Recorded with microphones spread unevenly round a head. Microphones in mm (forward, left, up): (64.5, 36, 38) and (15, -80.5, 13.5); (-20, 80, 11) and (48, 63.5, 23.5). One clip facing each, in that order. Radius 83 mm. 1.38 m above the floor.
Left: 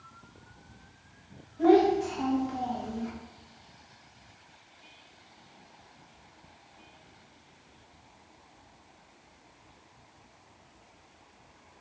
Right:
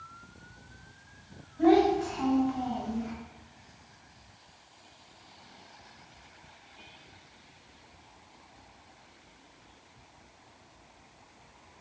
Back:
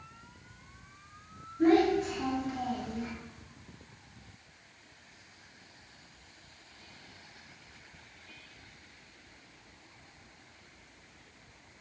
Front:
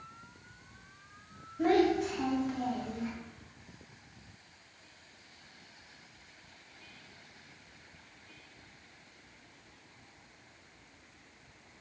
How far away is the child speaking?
About 1.6 m.